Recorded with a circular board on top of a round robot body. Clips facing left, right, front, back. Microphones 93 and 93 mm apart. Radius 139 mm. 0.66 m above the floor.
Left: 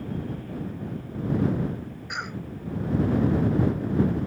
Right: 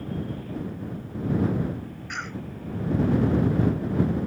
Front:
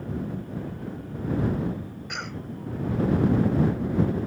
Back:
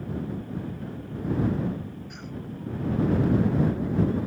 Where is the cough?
15° left.